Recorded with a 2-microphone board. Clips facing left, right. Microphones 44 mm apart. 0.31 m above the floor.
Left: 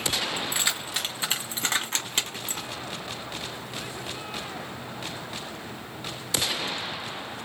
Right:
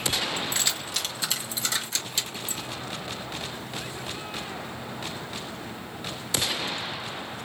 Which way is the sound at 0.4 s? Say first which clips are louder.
Left 1 dB; 15° left (ahead or behind).